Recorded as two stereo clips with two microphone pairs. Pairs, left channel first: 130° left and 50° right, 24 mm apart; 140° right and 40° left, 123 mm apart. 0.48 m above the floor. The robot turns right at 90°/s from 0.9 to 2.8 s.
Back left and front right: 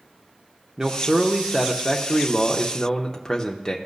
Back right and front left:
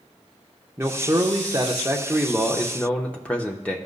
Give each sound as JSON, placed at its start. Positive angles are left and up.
{"t": 0.8, "sound": "a man speaking", "azimuth_deg": -5, "distance_m": 0.7}